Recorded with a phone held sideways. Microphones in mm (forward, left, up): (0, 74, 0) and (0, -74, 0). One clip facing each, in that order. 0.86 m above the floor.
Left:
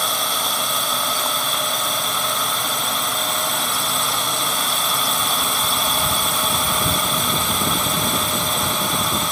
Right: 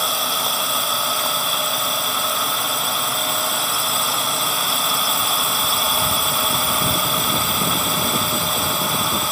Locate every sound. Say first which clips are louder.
0.0 s a drone: even; centre (ahead or behind)